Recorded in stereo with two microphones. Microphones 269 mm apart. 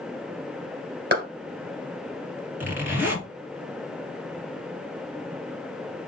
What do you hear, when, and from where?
1.1 s a clap: 40° right (ahead or behind), 2 m
2.6 s a zipper: 5° right (ahead or behind), 2 m